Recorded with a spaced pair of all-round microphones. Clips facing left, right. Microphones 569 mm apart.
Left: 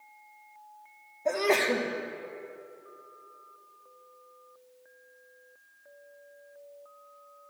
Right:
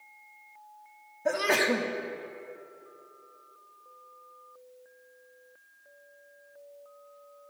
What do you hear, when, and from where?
1.2 s a sneeze: 40° right (ahead or behind), 0.6 m